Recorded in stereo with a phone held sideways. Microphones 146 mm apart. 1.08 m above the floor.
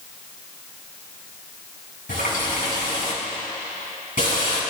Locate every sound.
2.1 s a running tap: 70° left (ahead or behind), 7 m